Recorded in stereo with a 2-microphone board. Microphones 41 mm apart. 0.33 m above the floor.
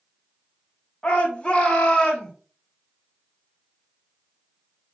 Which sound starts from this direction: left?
A shout, at 1.0 s.